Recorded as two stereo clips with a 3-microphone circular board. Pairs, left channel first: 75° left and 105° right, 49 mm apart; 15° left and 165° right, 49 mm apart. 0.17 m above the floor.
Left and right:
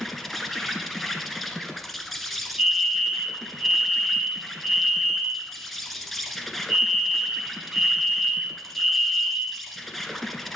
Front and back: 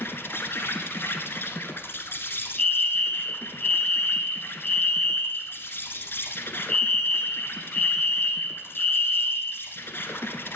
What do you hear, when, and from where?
0.0 s an insect: 15° right, 1.0 m
2.6 s a fire alarm: 40° right, 3 m